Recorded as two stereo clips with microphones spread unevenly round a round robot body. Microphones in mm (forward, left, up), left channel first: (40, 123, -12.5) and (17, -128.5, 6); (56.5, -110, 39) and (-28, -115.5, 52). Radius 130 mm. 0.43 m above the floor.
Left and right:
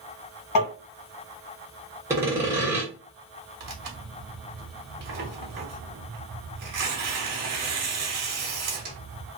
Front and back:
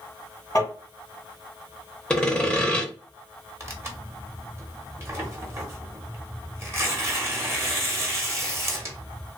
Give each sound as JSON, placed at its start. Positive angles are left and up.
{"t": 0.6, "sound": "tapping", "azimuth_deg": 70, "distance_m": 1.8}
{"t": 2.1, "sound": "sawing", "azimuth_deg": -20, "distance_m": 0.9}
{"t": 3.6, "sound": "tearing paper", "azimuth_deg": -120, "distance_m": 1.0}